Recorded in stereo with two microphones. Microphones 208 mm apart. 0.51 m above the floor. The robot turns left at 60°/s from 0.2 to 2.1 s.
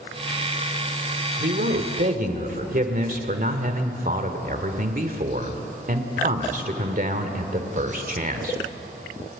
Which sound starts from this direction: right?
A man speaking, at 1.4 s.